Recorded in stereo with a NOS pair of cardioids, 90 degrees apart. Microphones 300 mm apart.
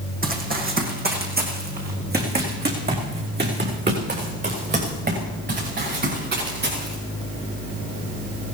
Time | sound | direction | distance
0.2 | running footsteps | 30° right | 4 m